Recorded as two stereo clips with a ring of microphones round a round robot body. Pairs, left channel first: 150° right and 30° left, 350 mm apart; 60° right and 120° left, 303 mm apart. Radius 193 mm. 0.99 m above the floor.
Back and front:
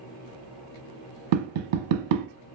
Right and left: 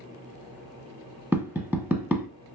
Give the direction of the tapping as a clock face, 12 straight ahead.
11 o'clock.